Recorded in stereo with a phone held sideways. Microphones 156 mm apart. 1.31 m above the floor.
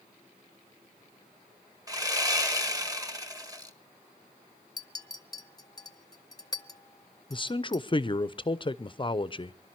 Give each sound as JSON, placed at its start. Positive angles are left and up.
{"t": 1.9, "sound": "sawing", "side_deg": -25, "distance_m": 1.1}
{"t": 4.8, "sound": "a clink", "side_deg": 25, "distance_m": 0.7}
{"t": 7.3, "sound": "a man speaking", "side_deg": 35, "distance_m": 0.6}